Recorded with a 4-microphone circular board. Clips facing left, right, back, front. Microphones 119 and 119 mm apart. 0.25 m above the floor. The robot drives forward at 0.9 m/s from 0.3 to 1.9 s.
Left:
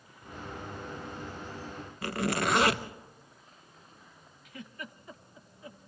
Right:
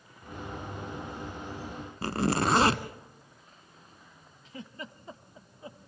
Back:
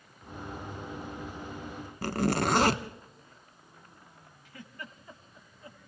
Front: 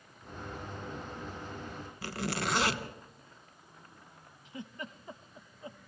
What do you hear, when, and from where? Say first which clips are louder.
2.0 s a zipper: right 3 dB, back 8 dB; 145° right, 0.9 m
4.5 s a giggle: right 2 dB, front 4 dB; 55° right, 0.8 m